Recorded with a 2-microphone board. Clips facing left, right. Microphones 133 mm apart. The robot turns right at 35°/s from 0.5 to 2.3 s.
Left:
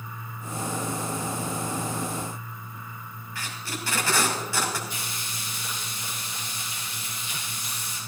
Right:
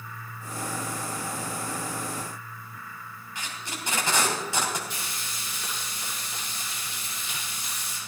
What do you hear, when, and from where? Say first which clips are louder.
3.4 s tape being pulled: left 2 dB; 20° right (ahead or behind), 2.5 m
4.9 s frying: left 1 dB; 85° right, 7.5 m